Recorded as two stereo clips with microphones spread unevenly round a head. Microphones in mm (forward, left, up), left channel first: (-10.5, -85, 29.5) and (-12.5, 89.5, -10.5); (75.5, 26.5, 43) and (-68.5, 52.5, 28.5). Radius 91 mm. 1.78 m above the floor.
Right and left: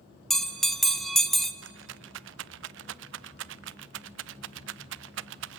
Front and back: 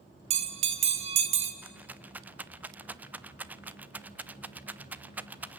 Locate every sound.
0.3 s a bell: 155° right, 0.9 m
1.6 s a rattle: 90° left, 0.5 m